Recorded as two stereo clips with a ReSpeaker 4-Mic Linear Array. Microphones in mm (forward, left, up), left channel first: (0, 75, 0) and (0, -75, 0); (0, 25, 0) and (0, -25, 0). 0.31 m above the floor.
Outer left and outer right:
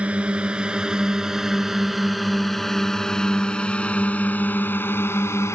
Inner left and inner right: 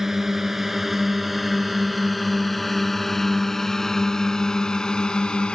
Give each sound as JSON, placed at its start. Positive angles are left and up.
{"t": 0.0, "sound": "a drone", "side_deg": -10}